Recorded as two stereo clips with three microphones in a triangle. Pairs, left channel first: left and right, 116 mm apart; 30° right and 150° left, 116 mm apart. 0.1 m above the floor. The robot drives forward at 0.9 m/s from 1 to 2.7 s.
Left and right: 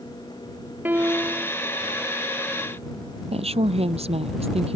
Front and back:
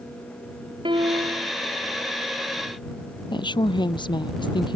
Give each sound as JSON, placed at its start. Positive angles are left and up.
{"t": 0.8, "sound": "a piano", "azimuth_deg": -165}
{"t": 3.3, "sound": "a woman speaking", "azimuth_deg": -70}